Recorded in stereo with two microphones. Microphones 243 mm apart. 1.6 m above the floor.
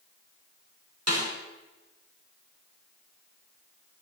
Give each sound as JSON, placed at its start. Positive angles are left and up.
{"t": 1.1, "sound": "a snare drum", "side_deg": -85, "distance_m": 5.0}